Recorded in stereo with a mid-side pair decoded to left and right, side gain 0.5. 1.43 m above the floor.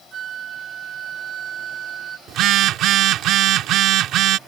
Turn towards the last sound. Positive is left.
turn(degrees=-70)